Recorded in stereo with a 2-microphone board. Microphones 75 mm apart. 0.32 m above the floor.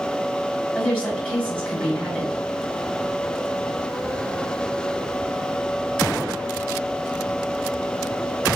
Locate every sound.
0.8 s a woman speaking: 15° left (ahead or behind), 1.9 m